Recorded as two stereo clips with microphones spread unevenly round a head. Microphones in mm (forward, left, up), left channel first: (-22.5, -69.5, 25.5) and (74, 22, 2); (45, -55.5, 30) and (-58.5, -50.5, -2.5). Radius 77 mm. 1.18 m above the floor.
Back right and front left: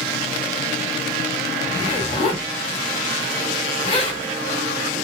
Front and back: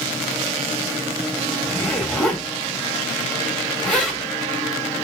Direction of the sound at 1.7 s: 85° right.